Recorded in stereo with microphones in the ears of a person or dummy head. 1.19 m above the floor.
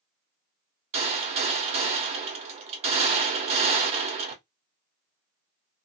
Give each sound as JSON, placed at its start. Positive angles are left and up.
{"t": 0.9, "sound": "a gunshot", "side_deg": -45, "distance_m": 1.1}